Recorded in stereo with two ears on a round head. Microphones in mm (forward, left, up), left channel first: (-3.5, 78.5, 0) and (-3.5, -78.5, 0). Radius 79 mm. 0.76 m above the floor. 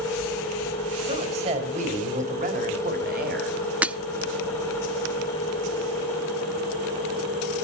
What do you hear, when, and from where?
1.1 s a woman speaking: 35° right (ahead or behind), 3.5 m; by 3.6 s 60° right (ahead or behind), 3 m
3.8 s breaking glass: 5° right (ahead or behind), 0.5 m